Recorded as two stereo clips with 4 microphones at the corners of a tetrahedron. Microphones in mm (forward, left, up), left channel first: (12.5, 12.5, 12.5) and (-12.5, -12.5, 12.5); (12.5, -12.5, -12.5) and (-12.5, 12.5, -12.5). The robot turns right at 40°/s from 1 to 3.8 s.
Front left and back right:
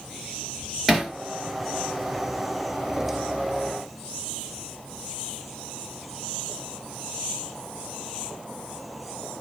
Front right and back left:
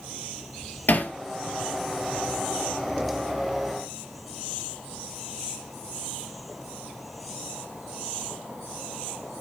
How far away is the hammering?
About 1.8 m.